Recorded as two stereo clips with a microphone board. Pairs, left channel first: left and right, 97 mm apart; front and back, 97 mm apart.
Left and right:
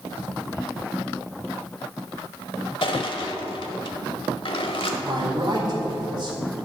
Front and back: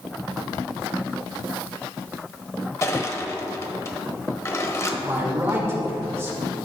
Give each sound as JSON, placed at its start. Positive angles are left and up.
{"t": 2.8, "sound": "crushing", "azimuth_deg": 60, "distance_m": 1.0}
{"t": 5.0, "sound": "a man speaking", "azimuth_deg": -120, "distance_m": 1.8}